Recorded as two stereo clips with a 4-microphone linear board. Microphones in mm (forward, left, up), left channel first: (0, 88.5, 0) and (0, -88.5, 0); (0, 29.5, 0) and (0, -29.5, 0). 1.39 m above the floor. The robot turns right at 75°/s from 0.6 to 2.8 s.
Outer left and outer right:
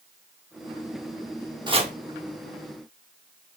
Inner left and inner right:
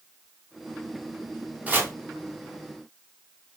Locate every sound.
1.7 s chopping: 25° right (ahead or behind), 0.8 m; by 1.9 s 40° right (ahead or behind), 0.8 m